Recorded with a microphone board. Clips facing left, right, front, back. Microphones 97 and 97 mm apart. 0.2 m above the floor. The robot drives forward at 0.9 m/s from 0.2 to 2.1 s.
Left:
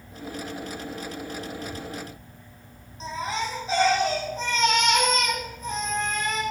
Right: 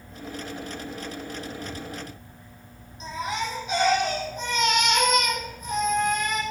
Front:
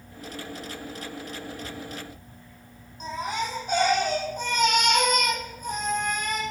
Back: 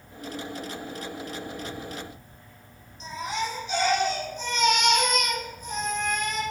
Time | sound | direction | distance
3.0 | a baby crying | 35° left | 5 m